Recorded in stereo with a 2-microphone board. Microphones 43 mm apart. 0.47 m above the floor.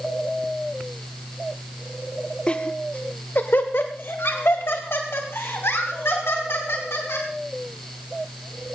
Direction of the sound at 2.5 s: 25° left (ahead or behind).